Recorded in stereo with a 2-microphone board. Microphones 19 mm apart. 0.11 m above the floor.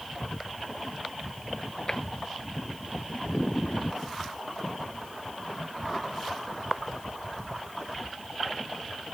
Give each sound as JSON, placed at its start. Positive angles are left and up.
{"t": 1.9, "sound": "tapping", "side_deg": 30}